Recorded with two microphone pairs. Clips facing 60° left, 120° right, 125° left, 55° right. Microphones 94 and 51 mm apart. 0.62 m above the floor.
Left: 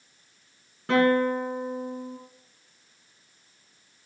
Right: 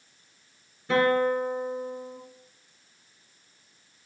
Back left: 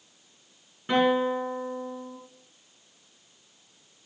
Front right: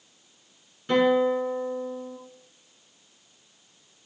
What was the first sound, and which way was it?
A guitar, 55° left.